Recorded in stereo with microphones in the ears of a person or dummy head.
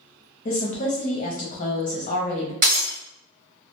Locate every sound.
0.5 s a woman speaking: 40° left (ahead or behind), 0.8 m
2.6 s breaking glass: 50° right (ahead or behind), 1.5 m